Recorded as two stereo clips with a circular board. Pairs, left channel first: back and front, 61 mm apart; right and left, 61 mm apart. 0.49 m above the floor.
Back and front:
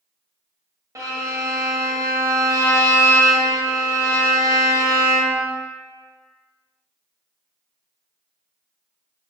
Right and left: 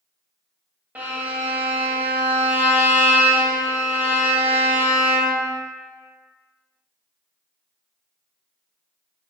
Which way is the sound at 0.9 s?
25° left.